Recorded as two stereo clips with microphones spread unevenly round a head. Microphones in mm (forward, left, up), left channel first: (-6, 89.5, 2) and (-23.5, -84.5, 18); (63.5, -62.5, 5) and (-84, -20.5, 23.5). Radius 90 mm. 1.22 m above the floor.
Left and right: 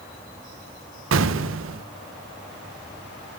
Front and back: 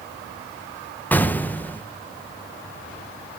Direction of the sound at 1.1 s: 95° right.